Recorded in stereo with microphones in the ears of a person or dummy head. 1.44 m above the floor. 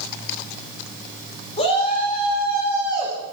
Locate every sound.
1.6 s a shout: 30° left (ahead or behind), 5.5 m; by 3.1 s 20° left (ahead or behind), 6 m